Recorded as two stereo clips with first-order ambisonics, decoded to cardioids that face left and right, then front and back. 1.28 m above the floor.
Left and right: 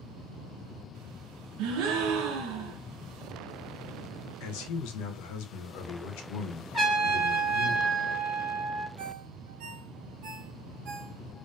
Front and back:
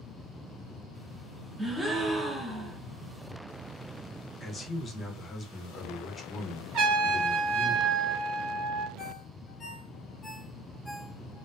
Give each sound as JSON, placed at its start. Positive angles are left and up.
{"t": 1.6, "sound": "a gasp", "azimuth_deg": -100, "distance_m": 0.5}
{"t": 4.4, "sound": "a man speaking", "azimuth_deg": 75, "distance_m": 0.6}
{"t": 6.7, "sound": "a trumpet", "azimuth_deg": -170, "distance_m": 1.5}
{"t": 9.0, "sound": "a ringtone", "azimuth_deg": -80, "distance_m": 0.8}